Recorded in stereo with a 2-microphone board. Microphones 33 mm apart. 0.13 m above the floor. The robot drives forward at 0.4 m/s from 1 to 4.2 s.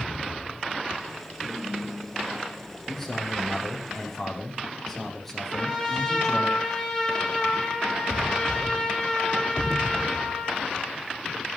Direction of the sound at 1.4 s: 15° right (ahead or behind).